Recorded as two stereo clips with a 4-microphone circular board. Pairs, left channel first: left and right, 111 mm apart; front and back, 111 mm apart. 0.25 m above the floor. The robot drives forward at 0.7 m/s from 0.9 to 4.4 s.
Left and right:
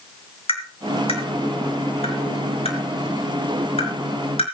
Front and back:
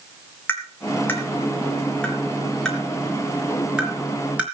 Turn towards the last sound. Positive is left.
turn(degrees=105)